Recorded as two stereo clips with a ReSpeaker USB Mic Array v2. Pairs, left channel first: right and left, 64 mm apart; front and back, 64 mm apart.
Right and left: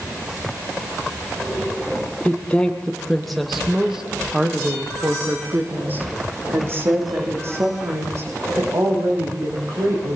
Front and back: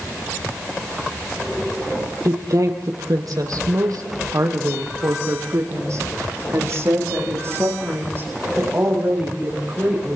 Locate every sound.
2.2 s a woman speaking: 155° right, 3.5 m; by 10.2 s 125° left, 8.5 m